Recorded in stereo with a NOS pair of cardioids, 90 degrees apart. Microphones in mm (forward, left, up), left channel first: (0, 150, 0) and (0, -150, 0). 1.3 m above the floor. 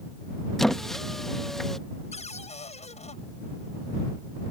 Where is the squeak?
Straight ahead.